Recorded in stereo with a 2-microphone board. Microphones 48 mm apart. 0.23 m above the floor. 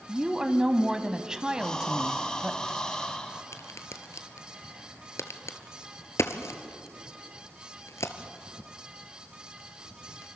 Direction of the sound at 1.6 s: 15° left (ahead or behind).